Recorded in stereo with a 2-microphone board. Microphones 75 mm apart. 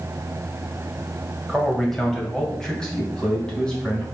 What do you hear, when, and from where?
1.5 s a man speaking: 5° left (ahead or behind), 1.8 m; by 4.0 s 10° left (ahead or behind), 3.5 m